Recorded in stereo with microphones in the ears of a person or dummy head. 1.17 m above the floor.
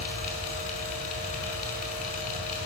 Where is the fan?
35° left (ahead or behind), 5 m.